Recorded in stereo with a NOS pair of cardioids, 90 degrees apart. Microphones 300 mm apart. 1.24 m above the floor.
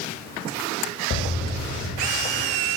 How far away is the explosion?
About 1.9 m.